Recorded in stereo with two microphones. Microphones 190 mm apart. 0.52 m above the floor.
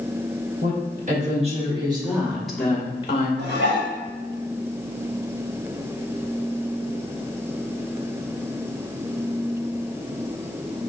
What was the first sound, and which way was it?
A woman speaking, 50° right (ahead or behind).